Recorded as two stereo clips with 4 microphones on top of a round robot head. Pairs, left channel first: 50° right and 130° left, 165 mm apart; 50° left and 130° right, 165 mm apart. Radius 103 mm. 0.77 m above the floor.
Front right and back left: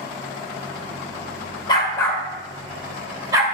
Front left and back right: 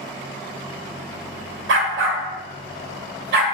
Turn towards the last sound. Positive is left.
turn(degrees=-160)